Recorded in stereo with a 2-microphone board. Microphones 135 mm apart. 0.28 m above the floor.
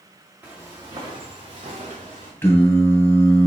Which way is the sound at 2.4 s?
15° left (ahead or behind).